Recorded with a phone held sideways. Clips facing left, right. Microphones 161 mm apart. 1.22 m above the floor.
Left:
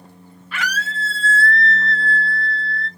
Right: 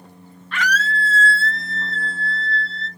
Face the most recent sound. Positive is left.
turn(degrees=55)  # may be behind; listen again after turning